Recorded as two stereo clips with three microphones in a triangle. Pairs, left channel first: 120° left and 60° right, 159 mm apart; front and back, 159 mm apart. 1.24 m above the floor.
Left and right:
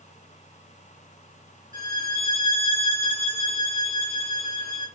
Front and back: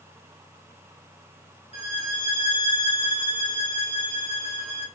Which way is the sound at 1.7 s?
140° left.